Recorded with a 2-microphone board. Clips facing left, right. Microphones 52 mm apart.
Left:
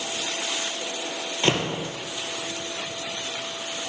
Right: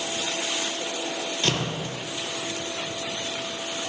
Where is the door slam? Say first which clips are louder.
Left 5 dB; 30° left (ahead or behind), 4 m.